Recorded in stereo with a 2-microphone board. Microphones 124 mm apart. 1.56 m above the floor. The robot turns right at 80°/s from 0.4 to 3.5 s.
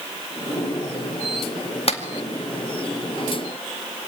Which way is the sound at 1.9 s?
50° left (ahead or behind).